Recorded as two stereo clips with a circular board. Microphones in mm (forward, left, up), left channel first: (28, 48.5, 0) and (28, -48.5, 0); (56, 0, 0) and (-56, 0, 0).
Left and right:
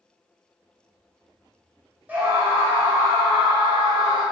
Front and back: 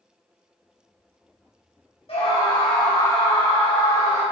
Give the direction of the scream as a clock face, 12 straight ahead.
1 o'clock.